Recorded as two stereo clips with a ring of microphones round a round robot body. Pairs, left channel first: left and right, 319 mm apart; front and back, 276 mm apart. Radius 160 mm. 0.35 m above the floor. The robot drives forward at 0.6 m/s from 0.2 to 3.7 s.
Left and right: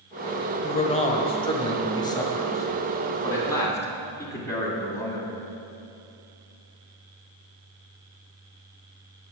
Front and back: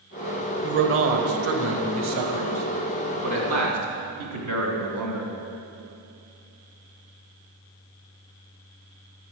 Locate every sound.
0.6 s a man speaking: 150° left, 1.1 m; by 5.3 s 170° left, 2.5 m